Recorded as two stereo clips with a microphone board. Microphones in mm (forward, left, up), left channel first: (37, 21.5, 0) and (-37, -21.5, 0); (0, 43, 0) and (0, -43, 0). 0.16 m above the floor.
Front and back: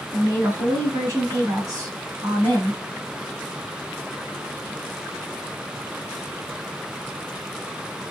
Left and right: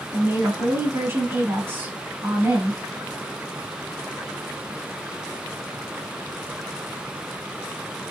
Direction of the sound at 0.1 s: 130° right.